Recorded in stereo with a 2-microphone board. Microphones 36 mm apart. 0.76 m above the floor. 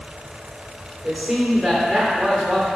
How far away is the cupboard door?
No cupboard door in this recording.